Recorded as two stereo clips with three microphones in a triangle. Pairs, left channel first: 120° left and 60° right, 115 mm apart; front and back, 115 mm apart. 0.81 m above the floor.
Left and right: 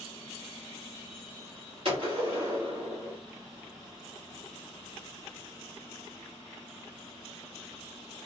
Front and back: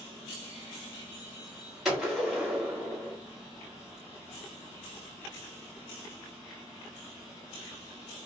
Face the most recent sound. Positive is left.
turn(degrees=-90)